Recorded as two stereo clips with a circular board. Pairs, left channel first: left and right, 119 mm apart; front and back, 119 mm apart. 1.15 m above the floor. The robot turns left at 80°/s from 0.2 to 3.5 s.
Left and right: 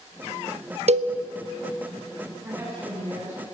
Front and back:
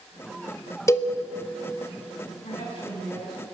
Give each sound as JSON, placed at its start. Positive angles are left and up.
{"t": 0.9, "sound": "a cowbell", "azimuth_deg": -65, "distance_m": 0.9}
{"t": 2.4, "sound": "a woman speaking", "azimuth_deg": -20, "distance_m": 9.0}